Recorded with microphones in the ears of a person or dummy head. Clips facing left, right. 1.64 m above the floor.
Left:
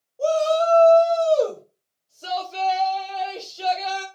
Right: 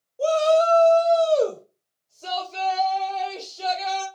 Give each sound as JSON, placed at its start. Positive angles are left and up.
{"t": 0.2, "sound": "a shout", "side_deg": -25, "distance_m": 0.9}